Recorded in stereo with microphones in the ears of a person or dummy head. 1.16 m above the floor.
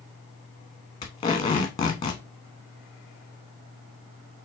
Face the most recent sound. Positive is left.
turn(degrees=25)  # may be behind; listen again after turning